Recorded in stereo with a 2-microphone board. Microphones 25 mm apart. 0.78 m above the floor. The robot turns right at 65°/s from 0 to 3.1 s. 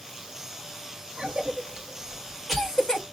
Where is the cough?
60° right (ahead or behind), 1.6 m; by 3.0 s 30° left (ahead or behind), 1.6 m.